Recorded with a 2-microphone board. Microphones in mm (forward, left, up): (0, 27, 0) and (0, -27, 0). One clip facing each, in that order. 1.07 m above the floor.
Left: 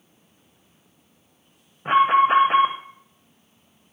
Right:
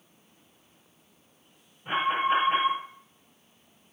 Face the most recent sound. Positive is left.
turn(degrees=80)